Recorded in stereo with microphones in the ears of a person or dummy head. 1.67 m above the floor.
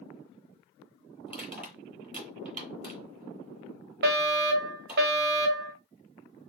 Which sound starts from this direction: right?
A fire alarm, at 4.0 s.